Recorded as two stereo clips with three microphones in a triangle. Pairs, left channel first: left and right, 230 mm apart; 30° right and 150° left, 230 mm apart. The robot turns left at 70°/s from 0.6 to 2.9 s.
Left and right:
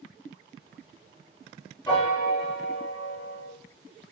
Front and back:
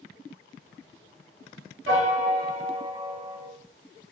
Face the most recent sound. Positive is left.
turn(degrees=85)